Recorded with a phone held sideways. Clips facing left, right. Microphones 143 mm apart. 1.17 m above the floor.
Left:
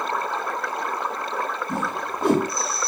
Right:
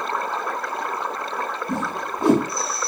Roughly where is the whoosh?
Right.